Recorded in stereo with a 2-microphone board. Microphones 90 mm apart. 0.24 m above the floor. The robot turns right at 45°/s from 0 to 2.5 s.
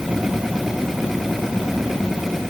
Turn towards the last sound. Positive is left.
No sound to turn to.